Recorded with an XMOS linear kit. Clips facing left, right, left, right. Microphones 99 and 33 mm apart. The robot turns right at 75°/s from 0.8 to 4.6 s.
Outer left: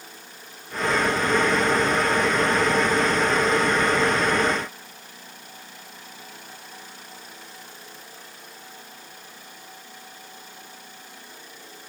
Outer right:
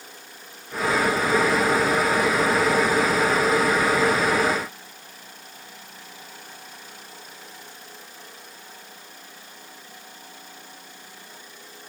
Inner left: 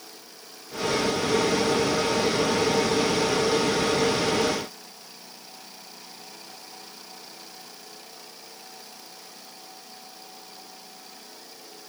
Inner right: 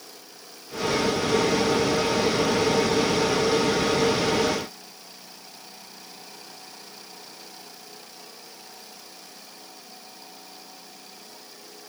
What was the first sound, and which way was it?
Only background noise.